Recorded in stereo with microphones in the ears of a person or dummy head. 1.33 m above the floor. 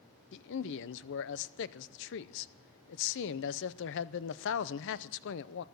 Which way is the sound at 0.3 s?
65° left (ahead or behind).